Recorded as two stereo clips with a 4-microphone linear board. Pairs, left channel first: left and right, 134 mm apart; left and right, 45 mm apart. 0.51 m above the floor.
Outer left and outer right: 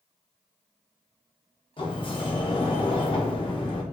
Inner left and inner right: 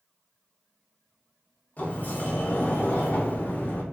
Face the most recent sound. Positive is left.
turn(degrees=40)  # may be behind; listen again after turning